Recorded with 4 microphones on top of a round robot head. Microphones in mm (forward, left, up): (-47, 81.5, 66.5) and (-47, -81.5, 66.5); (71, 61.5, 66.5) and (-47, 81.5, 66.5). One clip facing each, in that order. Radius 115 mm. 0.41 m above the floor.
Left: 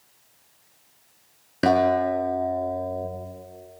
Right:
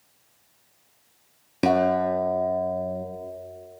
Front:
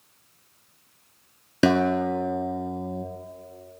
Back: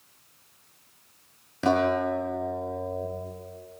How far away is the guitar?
About 5.5 m.